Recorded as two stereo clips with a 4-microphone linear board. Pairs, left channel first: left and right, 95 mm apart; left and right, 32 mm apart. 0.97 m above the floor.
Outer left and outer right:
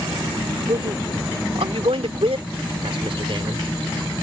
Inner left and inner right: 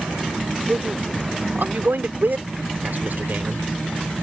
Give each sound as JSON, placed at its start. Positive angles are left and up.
{"t": 0.7, "sound": "a man speaking", "side_deg": -70}